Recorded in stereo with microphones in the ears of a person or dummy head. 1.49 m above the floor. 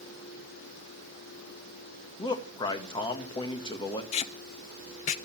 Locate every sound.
2.2 s a man speaking: 20° left (ahead or behind), 1.8 m
4.1 s tape being pulled: 35° left (ahead or behind), 0.6 m